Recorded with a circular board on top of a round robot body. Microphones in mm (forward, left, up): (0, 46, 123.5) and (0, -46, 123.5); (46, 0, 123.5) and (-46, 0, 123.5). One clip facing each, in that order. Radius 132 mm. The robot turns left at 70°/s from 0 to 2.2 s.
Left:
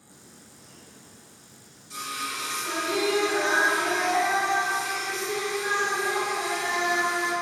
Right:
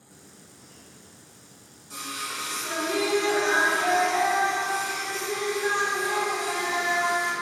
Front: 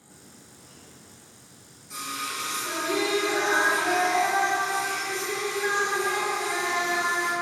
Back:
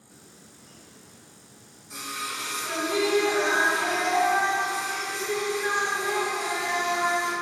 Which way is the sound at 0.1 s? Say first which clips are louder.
Even, front 1 dB; 35° left.